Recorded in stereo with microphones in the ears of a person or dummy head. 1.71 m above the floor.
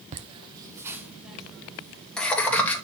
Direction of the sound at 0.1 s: 45° right (ahead or behind).